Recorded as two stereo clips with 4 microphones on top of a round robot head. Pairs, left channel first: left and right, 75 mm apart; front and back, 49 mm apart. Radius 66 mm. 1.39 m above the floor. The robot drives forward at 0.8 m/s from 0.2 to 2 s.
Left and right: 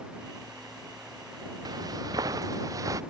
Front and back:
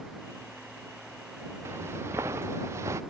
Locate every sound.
1.6 s footsteps: 125° right; by 3.0 s 135° right